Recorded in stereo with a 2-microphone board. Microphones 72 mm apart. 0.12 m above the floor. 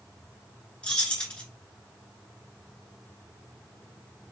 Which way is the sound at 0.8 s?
15° left (ahead or behind).